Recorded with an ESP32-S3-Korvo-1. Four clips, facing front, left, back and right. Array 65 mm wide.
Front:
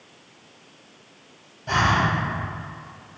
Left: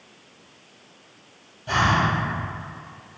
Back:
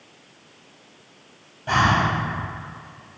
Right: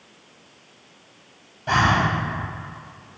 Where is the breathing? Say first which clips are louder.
Right 2 dB, back 1 dB; 105° right, 1.6 m.